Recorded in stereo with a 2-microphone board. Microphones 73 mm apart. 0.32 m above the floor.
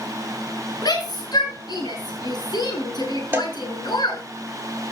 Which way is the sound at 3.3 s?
30° right (ahead or behind).